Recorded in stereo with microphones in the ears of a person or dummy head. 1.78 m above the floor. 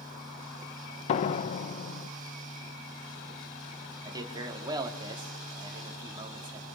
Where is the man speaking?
20° right (ahead or behind), 4 m.